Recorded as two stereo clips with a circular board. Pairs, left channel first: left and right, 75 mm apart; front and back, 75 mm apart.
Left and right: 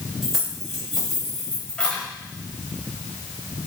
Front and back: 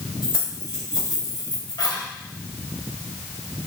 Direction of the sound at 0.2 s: 5° right.